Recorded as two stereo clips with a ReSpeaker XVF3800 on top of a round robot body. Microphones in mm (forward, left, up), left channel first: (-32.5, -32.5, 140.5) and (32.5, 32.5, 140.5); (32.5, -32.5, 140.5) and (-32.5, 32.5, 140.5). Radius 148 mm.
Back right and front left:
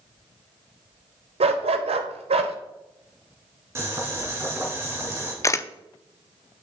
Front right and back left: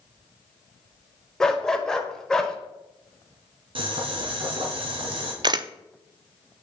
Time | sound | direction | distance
1.4 | a dog barking | 40° left | 1.1 m
3.8 | boiling | 110° left | 2.5 m
5.4 | a camera shutter | 170° left | 0.8 m